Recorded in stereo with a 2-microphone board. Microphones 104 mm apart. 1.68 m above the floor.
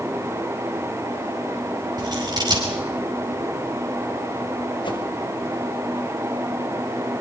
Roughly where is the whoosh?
Left.